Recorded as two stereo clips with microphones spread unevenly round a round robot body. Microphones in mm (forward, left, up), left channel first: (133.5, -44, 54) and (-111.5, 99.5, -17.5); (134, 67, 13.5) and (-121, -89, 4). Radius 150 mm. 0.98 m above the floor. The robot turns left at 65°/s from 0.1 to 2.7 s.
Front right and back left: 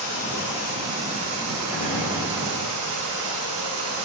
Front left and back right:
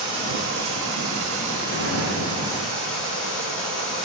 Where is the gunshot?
35° right, 3 m; by 2.3 s 70° right, 3 m.